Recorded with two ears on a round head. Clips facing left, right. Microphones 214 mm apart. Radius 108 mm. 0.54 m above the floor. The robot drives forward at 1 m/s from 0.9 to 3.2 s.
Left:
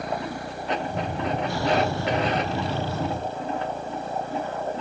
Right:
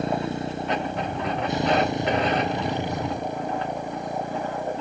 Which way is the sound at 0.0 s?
20° right (ahead or behind).